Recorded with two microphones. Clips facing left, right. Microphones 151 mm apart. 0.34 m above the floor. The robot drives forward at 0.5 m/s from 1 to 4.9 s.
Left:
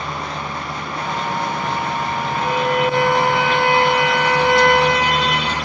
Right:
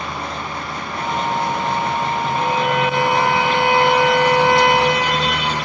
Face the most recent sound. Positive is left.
turn(degrees=-25)  # may be behind; listen again after turning